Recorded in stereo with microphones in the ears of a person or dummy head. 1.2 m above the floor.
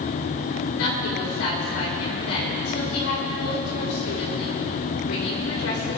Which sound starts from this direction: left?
A woman speaking, at 0.7 s.